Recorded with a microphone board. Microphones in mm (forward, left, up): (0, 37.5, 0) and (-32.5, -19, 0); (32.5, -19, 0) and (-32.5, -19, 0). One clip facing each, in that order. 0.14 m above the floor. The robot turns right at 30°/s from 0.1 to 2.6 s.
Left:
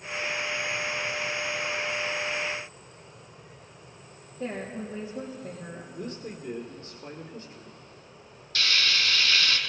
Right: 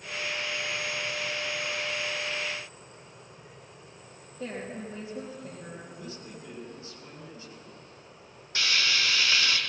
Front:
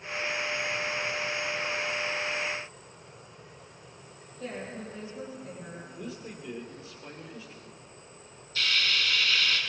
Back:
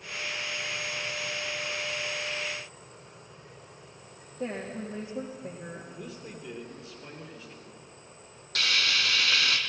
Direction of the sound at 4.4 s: 140° left.